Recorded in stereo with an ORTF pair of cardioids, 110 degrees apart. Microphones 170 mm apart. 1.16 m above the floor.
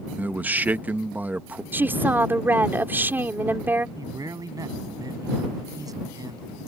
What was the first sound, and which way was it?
A man speaking, 10° right.